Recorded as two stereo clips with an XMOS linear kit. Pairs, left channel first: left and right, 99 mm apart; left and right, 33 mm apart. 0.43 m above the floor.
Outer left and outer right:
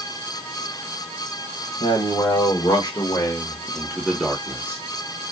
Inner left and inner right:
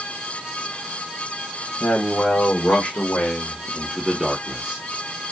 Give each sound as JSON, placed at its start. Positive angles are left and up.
{"t": 1.8, "sound": "a man speaking", "side_deg": 55, "distance_m": 2.0}